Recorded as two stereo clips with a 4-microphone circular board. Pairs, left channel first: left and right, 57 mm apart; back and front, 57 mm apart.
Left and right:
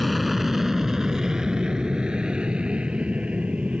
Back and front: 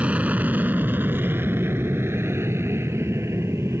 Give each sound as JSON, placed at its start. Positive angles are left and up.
{"t": 0.0, "sound": "an aircraft", "azimuth_deg": 0}